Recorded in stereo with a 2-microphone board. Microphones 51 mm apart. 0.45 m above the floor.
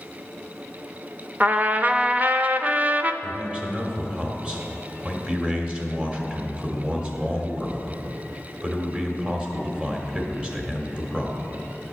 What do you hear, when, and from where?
1.4 s a trumpet: 30° right (ahead or behind), 0.5 m
3.2 s a man speaking: 25° right (ahead or behind), 1.6 m